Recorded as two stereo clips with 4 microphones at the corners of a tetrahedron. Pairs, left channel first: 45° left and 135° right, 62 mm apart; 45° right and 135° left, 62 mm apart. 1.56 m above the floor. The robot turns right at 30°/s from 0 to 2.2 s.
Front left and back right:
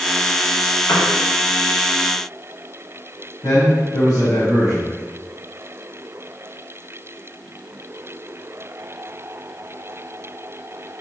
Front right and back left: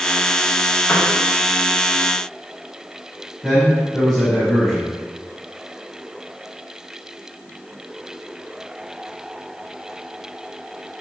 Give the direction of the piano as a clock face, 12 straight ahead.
11 o'clock.